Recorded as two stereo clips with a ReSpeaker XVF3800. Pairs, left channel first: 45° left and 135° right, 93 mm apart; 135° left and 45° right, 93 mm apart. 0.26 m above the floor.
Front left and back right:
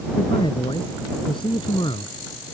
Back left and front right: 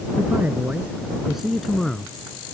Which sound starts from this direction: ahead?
A man speaking, at 0.2 s.